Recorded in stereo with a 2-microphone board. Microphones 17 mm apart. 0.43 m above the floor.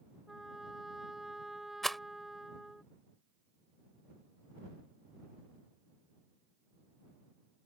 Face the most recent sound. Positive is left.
turn(degrees=15)  # may be behind; listen again after turning